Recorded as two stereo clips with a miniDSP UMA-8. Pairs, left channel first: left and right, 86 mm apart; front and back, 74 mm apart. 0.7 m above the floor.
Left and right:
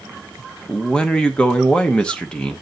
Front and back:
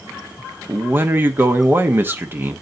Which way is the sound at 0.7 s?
160° left.